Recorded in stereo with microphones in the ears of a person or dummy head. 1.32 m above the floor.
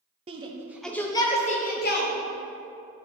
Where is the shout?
30° right (ahead or behind), 0.7 m; by 2.1 s 50° left (ahead or behind), 1.0 m.